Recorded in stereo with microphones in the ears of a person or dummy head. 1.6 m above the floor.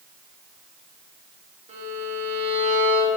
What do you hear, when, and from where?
1.7 s a violin: 35° right (ahead or behind), 3 m